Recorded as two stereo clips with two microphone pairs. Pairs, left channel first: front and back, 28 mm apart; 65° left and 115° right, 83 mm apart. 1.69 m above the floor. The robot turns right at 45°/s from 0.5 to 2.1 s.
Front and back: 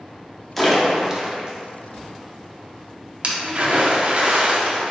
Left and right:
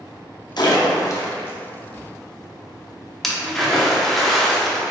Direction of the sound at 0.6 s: 85° left.